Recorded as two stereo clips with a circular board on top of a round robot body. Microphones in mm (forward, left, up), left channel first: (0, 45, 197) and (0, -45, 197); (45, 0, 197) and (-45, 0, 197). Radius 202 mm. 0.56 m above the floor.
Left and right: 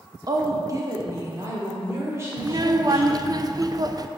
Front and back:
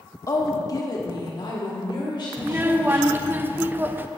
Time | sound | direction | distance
0.3 | a woman speaking | 50° right | 1.2 m
2.4 | a child speaking | 115° right | 0.7 m